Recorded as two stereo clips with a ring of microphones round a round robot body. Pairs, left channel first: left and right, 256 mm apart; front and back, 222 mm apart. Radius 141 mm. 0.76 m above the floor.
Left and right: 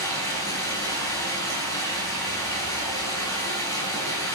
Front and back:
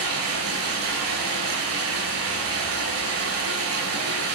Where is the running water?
170° left, 6.5 m.